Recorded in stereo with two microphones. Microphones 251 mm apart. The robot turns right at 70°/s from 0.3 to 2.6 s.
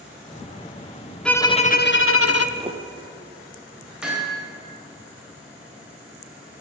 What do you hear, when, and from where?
1.2 s a violin: 5° left, 0.6 m; by 2.5 s 85° left, 0.6 m
2.6 s footsteps: 25° right (ahead or behind), 1.5 m; by 2.9 s 20° right (ahead or behind), 1.5 m
4.0 s hammering: 5° right (ahead or behind), 3 m